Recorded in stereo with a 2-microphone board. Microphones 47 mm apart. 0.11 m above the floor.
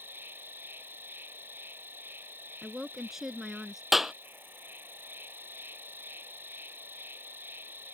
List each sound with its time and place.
0.0 s an insect: 50° right (ahead or behind)
2.6 s a woman speaking: 10° right (ahead or behind)
3.9 s a clap: 5° right (ahead or behind)